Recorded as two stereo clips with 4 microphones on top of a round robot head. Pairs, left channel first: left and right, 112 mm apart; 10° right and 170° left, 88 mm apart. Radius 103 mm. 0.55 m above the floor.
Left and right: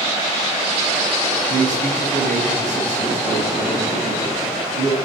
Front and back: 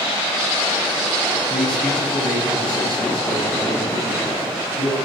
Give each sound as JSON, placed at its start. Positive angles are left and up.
{"t": 1.5, "sound": "a man speaking", "azimuth_deg": -90, "distance_m": 6.0}